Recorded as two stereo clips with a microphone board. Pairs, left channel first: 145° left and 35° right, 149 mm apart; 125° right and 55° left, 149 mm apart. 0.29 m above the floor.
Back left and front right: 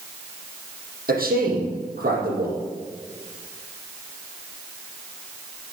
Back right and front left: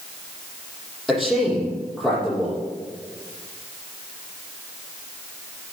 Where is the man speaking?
35° right, 7 m.